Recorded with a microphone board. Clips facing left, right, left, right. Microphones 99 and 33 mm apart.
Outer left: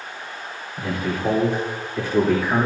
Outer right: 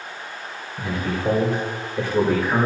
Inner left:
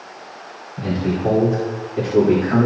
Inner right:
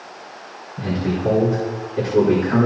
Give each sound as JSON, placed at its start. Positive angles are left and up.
{"t": 0.8, "sound": "a man speaking", "side_deg": 85, "distance_m": 4.5}